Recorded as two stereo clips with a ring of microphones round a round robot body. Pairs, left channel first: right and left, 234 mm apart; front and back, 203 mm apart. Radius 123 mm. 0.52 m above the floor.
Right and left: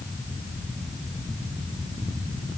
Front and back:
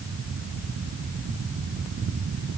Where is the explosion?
I don't hear an explosion.